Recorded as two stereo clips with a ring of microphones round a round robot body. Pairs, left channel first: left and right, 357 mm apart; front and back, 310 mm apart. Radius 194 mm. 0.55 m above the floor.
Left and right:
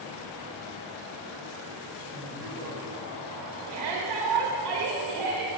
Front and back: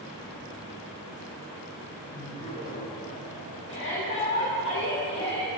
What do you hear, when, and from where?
2.1 s laughter: 40° right, 5 m; by 4.7 s straight ahead, 6.5 m
3.7 s a shout: 50° right, 2.5 m